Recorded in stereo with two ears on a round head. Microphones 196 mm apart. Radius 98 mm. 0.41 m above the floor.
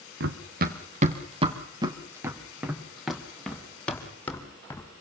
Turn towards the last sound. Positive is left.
turn(degrees=10)  # may be behind; listen again after turning